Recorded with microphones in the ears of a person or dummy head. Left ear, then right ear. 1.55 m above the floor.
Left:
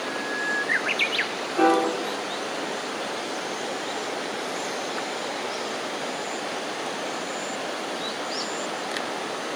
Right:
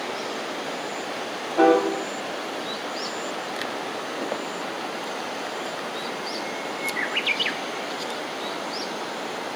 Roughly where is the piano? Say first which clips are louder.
Right 2 dB; right.